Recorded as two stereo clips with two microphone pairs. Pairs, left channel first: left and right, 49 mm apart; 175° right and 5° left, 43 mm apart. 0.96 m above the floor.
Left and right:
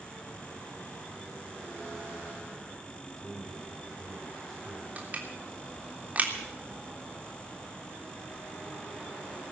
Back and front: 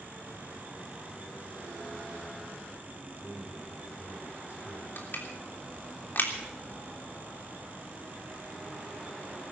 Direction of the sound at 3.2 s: 175° right.